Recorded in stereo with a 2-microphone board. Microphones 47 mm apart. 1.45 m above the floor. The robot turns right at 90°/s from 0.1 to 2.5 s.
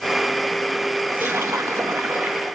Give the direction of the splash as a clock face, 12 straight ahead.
5 o'clock.